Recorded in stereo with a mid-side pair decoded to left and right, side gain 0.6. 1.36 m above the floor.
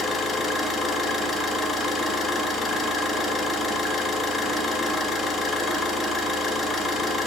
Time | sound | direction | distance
0.0 | an engine running | 25° left | 2.5 m